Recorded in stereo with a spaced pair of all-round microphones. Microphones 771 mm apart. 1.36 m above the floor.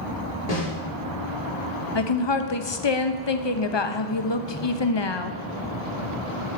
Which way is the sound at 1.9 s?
35° left (ahead or behind).